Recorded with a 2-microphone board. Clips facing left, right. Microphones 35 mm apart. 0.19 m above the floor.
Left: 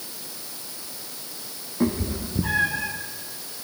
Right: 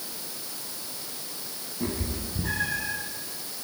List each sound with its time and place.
1.8 s a cat meowing: 50° left (ahead or behind), 3 m; by 2.9 s 25° left (ahead or behind), 1.6 m